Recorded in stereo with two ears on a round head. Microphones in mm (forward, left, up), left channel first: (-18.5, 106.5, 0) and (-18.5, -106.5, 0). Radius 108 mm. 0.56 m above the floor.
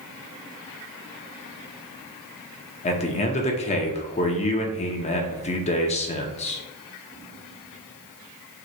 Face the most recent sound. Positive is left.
turn(degrees=25)  # may be behind; listen again after turning